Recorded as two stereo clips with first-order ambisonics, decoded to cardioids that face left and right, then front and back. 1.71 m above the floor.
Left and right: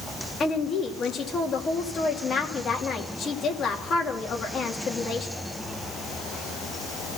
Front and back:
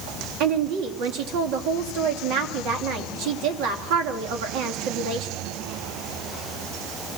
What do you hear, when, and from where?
0.4 s a woman speaking: 155° left, 3 m